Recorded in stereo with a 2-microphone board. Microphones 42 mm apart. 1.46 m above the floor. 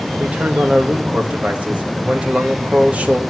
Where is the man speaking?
30° right (ahead or behind), 2 m.